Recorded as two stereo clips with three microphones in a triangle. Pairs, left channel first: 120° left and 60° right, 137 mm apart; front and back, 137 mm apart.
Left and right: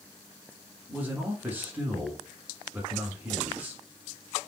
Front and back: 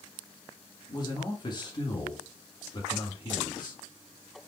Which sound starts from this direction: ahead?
A man speaking, at 0.9 s.